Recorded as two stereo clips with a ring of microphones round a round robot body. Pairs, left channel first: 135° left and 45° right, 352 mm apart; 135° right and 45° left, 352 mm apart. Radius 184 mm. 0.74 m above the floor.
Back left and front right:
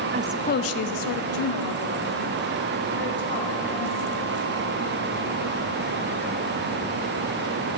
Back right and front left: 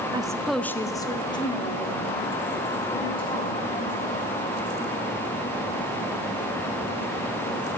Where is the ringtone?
No ringtone in this recording.